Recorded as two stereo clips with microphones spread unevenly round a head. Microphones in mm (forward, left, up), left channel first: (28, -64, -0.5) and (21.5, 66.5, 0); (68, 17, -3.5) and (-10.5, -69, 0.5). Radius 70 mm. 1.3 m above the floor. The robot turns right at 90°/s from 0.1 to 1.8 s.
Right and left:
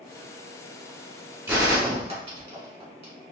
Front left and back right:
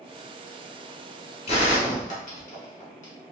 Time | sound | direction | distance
1.5 | a gunshot | 20° left | 1.1 m